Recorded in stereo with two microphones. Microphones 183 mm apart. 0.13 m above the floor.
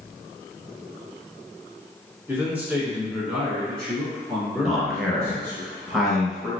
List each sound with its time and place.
2.3 s a man speaking: 10° right (ahead or behind), 1.4 m; by 5.6 s 20° left (ahead or behind), 1.8 m
4.6 s a man speaking: centre (ahead or behind), 1.5 m